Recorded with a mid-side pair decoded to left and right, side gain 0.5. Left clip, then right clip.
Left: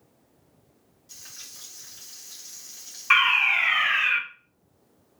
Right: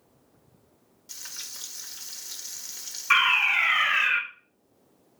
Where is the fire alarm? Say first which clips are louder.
Left 1 dB; 25° left, 1.9 m.